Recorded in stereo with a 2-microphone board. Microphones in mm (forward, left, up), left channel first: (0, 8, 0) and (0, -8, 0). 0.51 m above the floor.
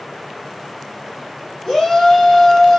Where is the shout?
45° left (ahead or behind), 1.6 m.